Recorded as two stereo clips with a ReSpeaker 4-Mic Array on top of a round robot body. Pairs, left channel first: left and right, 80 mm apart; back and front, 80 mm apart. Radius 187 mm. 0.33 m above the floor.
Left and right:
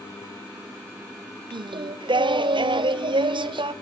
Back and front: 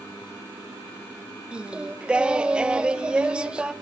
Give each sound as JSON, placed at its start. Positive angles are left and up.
{"t": 1.5, "sound": "singing", "azimuth_deg": -80, "distance_m": 0.7}